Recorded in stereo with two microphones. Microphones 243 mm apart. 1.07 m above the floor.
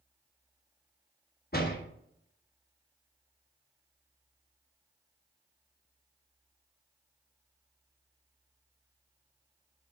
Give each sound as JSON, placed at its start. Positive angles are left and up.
{"t": 1.5, "sound": "a door slam", "side_deg": 40, "distance_m": 1.3}